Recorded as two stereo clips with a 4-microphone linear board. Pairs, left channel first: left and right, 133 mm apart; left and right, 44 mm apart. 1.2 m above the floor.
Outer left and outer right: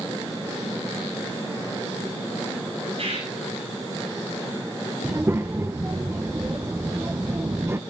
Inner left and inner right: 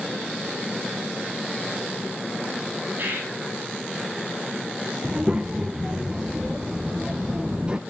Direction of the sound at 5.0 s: 20° right (ahead or behind).